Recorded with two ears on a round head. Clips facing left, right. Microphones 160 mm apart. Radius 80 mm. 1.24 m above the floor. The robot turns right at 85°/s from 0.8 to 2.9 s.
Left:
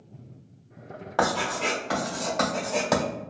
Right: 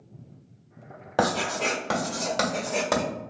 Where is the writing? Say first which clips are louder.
Right 1 dB; 25° right (ahead or behind), 1.5 m; by 3.0 s 5° right (ahead or behind), 1.5 m.